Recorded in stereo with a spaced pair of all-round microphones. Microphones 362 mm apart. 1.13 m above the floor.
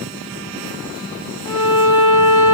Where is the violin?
40° left (ahead or behind), 0.8 m.